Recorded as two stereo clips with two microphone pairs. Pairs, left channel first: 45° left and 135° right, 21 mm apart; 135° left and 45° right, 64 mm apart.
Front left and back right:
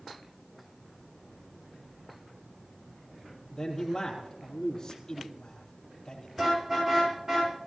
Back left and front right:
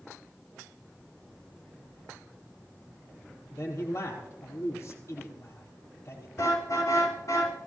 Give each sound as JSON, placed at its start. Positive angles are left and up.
{"t": 3.5, "sound": "a man speaking", "azimuth_deg": 105, "distance_m": 4.0}
{"t": 6.4, "sound": "a car horn", "azimuth_deg": 165, "distance_m": 8.0}